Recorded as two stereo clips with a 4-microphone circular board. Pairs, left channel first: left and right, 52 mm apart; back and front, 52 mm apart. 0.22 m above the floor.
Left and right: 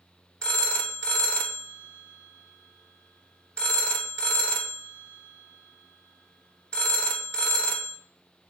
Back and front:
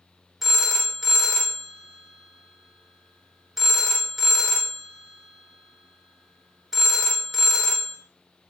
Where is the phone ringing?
85° left, 0.7 m.